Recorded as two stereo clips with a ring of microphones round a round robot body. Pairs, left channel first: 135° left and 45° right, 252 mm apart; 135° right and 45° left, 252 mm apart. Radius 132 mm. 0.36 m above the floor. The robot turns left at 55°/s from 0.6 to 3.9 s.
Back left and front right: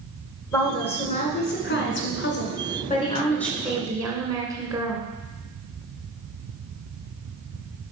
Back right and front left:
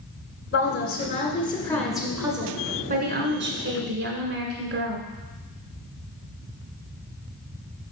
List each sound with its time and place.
0.5 s a woman speaking: 150° right, 1.7 m; by 5.0 s 25° left, 1.7 m